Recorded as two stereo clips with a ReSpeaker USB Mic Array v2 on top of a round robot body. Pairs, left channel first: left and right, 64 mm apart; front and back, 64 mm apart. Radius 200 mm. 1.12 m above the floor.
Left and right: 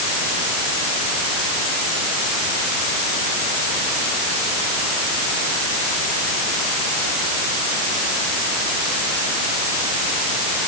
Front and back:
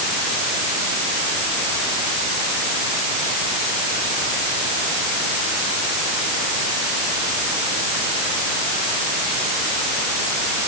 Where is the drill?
No drill in this recording.